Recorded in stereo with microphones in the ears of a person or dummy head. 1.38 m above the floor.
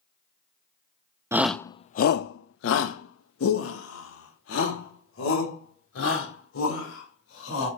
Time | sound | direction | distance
1.3 | a shout | 10° right (ahead or behind) | 0.6 m